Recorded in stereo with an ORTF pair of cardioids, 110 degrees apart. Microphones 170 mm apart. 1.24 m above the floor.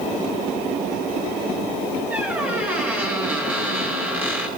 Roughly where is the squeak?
Ahead.